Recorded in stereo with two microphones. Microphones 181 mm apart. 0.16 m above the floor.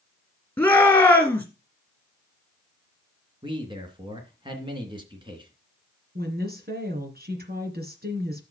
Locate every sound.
0.6 s a shout: 10° left (ahead or behind), 2.5 m
3.4 s a man speaking: 25° right (ahead or behind), 2.5 m
6.2 s a woman speaking: 55° right (ahead or behind), 2.5 m